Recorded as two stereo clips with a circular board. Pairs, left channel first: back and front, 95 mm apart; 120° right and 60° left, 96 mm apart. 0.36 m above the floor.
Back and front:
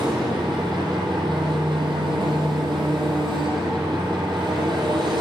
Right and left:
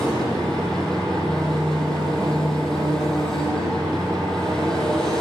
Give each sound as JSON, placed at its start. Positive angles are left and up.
{"t": 0.0, "sound": "an engine running", "azimuth_deg": -35, "distance_m": 3.5}